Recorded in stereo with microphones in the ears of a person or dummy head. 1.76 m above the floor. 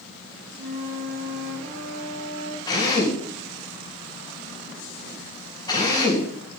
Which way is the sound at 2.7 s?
20° left (ahead or behind).